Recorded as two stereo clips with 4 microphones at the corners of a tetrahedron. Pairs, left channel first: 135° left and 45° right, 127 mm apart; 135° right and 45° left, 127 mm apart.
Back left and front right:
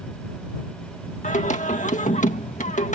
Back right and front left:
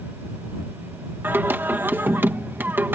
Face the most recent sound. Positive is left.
turn(degrees=120)